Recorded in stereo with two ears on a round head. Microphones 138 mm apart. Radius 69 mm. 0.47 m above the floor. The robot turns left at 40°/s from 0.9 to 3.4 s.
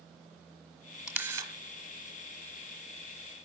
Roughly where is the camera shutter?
Centre.